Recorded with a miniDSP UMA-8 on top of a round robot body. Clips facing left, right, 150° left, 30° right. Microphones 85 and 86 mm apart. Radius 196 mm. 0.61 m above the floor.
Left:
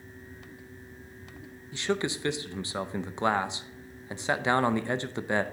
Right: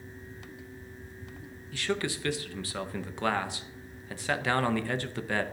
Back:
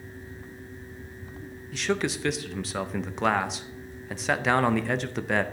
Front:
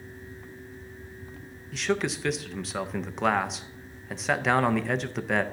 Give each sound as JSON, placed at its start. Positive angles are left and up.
{"t": 1.7, "sound": "a man speaking", "azimuth_deg": 60, "distance_m": 0.8}